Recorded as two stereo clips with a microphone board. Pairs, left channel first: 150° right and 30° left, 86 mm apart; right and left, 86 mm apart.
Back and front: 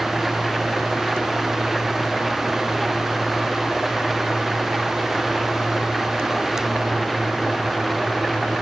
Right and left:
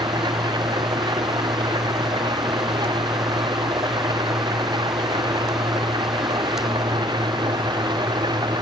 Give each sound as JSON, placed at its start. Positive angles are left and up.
{"t": 0.0, "sound": "an engine running", "azimuth_deg": 120}